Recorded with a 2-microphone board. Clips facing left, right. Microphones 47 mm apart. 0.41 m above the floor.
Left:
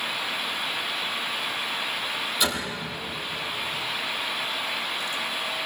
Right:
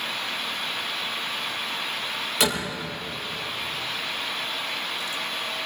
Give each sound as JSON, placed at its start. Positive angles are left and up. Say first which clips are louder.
{"t": 2.4, "sound": "a door slam", "louder": "right 4 dB", "side_deg": -85, "distance_m": 7.0}